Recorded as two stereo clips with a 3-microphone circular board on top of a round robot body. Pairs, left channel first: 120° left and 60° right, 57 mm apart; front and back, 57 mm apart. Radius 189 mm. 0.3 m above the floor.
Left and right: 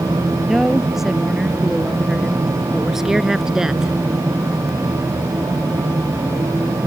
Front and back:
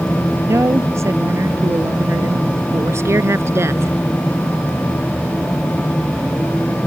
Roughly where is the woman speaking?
Behind right.